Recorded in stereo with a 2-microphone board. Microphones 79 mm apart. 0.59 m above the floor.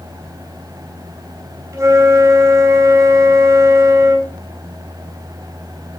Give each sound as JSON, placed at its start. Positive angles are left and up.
{"t": 1.7, "sound": "a flute", "side_deg": -40, "distance_m": 3.0}